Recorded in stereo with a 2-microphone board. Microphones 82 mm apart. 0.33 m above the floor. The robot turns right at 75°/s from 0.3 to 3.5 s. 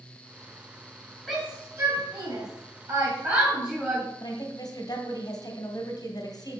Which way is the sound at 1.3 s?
Centre (ahead or behind).